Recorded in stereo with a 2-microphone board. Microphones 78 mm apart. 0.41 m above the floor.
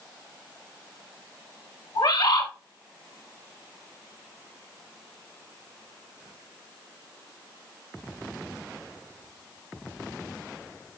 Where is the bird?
70° left (ahead or behind), 1.6 m.